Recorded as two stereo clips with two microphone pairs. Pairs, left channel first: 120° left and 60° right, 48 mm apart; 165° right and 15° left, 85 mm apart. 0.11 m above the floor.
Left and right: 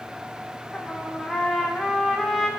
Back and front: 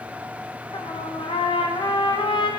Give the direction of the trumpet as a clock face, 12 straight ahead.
5 o'clock.